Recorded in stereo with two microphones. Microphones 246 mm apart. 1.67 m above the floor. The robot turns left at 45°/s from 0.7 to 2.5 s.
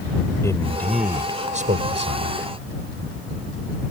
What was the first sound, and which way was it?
A man speaking, 10° left.